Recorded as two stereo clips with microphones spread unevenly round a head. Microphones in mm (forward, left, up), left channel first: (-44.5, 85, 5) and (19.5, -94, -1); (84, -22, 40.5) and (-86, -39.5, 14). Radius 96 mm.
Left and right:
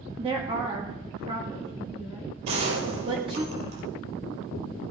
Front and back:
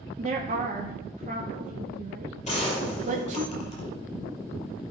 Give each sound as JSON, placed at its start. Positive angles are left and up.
{"t": 0.2, "sound": "a woman speaking", "azimuth_deg": -130, "distance_m": 1.6}
{"t": 2.5, "sound": "a gunshot", "azimuth_deg": -45, "distance_m": 4.5}